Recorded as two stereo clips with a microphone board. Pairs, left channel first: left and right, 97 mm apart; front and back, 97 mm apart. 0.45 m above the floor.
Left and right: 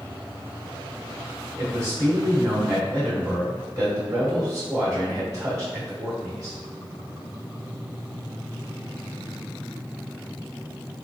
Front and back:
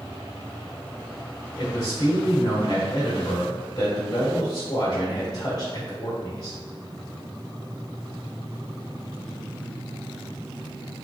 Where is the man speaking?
40° right, 1.2 m.